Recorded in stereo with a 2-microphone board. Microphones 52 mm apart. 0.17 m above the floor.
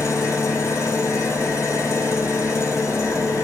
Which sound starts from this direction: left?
An engine running, at 0.0 s.